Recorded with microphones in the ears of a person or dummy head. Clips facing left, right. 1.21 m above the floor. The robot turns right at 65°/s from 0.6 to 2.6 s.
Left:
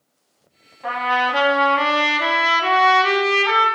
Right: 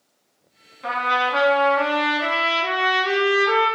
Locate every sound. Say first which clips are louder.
0.8 s a trumpet: left 2 dB; 15° right, 1.2 m; by 3.7 s 100° left, 1.2 m